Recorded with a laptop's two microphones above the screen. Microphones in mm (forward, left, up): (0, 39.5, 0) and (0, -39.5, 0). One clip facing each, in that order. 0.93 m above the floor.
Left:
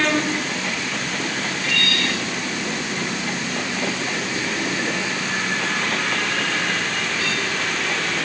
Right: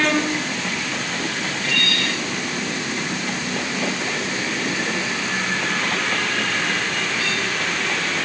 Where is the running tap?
No running tap in this recording.